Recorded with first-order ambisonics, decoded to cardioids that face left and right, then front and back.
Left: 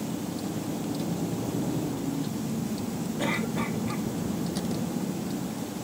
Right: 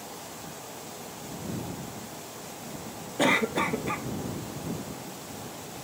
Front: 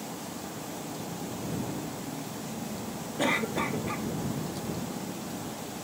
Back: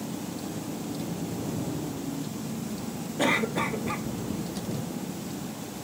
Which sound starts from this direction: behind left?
A vehicle, at 0.0 s.